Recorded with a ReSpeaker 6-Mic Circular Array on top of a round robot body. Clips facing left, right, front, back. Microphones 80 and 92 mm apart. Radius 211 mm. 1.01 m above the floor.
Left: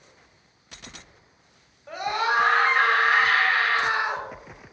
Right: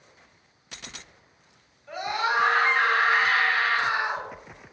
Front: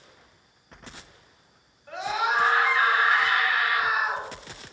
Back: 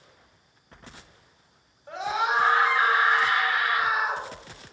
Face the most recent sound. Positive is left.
turn(degrees=120)